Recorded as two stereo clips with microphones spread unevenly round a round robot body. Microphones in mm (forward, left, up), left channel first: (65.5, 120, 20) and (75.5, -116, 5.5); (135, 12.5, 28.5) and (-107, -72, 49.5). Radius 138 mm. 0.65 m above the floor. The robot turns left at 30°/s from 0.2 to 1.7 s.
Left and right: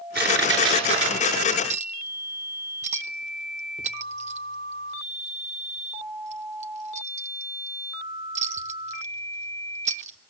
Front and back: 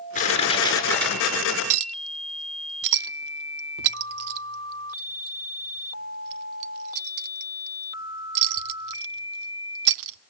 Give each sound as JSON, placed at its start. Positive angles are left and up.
{"t": 0.1, "sound": "crushing", "azimuth_deg": -40, "distance_m": 7.0}
{"t": 1.7, "sound": "a clink", "azimuth_deg": -155, "distance_m": 0.6}